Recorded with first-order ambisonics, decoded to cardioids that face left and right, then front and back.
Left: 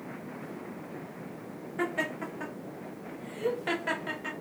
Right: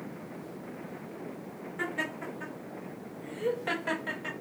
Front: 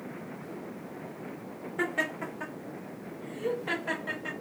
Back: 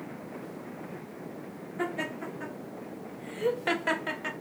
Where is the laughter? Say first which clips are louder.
Left 2 dB, front 3 dB; 30° left, 0.7 m; by 4.3 s straight behind, 1.0 m.